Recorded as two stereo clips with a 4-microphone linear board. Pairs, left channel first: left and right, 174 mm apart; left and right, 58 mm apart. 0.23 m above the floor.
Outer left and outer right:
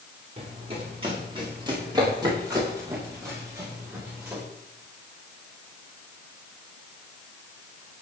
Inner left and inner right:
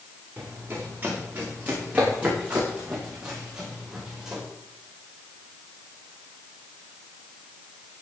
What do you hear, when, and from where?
0.4 s running footsteps: 35° right (ahead or behind), 6.5 m; by 4.4 s 10° right (ahead or behind), 8.5 m